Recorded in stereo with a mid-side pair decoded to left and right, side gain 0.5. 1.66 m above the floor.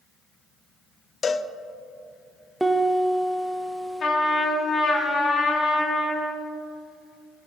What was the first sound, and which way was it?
A cowbell, 45° left.